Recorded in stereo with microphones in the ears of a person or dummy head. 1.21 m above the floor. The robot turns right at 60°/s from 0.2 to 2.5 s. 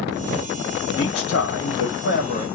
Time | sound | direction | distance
0.9 | a man speaking | 45° left | 1.3 m